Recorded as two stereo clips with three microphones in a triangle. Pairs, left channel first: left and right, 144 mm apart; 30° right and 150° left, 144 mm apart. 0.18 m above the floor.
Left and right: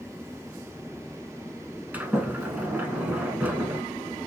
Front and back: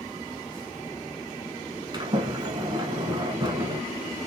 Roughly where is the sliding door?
Behind.